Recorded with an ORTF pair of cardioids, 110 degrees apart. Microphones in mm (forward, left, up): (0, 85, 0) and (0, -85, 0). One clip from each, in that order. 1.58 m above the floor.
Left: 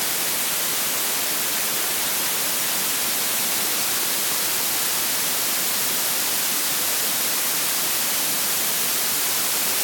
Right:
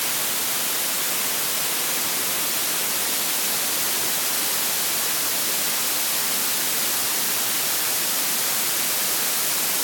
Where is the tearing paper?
No tearing paper in this recording.